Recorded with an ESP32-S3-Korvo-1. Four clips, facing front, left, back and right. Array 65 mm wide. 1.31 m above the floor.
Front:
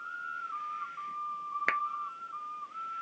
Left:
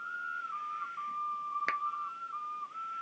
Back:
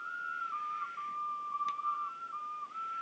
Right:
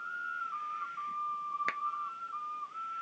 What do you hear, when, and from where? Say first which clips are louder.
1.7 s a clap: left 3 dB, front 7 dB; 5° left